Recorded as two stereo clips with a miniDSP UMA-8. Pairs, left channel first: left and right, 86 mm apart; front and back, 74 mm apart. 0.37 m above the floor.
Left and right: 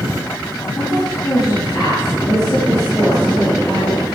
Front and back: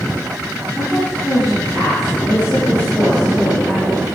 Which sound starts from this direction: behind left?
A woman speaking, at 0.8 s.